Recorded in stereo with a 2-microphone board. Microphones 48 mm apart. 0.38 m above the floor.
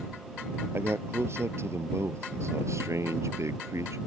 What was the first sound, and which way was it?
A man speaking, 55° right (ahead or behind).